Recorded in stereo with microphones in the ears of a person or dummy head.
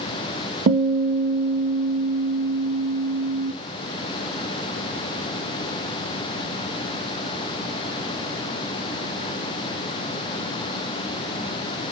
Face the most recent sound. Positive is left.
turn(degrees=-45)  # may be behind; listen again after turning